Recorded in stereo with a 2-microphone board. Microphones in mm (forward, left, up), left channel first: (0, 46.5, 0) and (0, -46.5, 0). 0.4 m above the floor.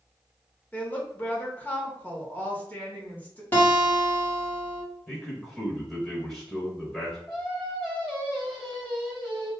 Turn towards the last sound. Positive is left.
turn(degrees=0)  # may be behind; listen again after turning